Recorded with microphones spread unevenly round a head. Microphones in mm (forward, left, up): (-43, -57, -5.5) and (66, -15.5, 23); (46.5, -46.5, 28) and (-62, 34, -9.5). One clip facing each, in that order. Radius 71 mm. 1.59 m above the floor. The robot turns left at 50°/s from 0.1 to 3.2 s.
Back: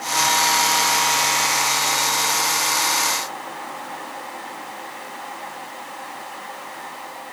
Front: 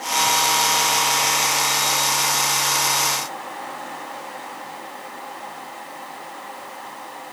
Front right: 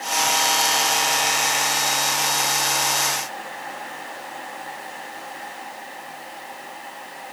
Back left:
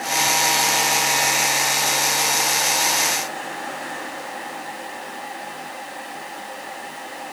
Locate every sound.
Only background noise.